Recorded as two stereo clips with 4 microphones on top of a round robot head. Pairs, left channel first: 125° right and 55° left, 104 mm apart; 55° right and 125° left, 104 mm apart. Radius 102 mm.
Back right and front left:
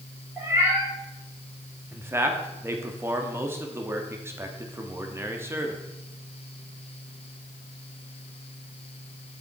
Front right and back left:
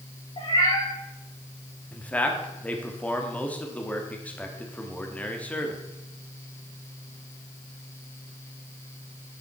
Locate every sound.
0.4 s a cat meowing: 15° right, 5 m
1.9 s a man speaking: 10° left, 1.3 m